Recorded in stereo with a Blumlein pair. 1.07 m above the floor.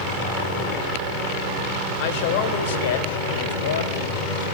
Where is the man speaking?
45° left, 4 m; by 4.5 s 65° left, 6 m.